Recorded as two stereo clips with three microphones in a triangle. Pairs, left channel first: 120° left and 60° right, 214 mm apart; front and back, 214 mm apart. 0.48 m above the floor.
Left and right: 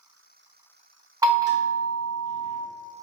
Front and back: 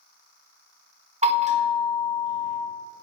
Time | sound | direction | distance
1.2 | a bell | 130° right | 1.1 m